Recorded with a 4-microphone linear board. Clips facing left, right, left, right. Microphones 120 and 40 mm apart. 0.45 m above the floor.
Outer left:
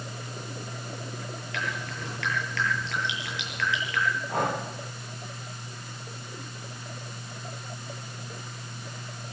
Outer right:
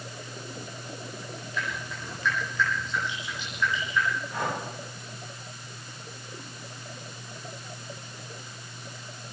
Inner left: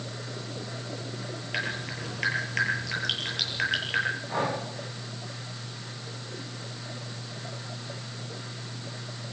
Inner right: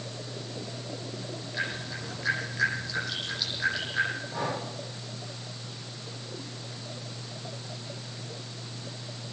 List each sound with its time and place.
1.5 s dripping: 75° left (ahead or behind), 9.5 m
4.3 s breathing: 50° left (ahead or behind), 7 m